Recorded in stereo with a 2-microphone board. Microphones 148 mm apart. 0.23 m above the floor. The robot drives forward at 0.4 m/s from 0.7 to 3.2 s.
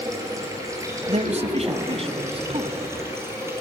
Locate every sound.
0.0 s running water: 20° right (ahead or behind), 4.5 m
1.1 s a man speaking: 50° right (ahead or behind), 1.4 m; by 2.8 s 40° right (ahead or behind), 1.7 m